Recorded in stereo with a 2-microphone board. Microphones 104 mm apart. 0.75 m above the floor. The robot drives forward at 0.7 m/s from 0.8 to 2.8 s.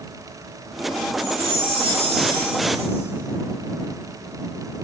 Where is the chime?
70° right (ahead or behind), 3.5 m; by 3.1 s 80° right, 3.5 m.